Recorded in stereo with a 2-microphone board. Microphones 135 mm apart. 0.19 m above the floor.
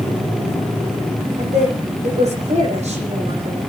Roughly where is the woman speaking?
Right.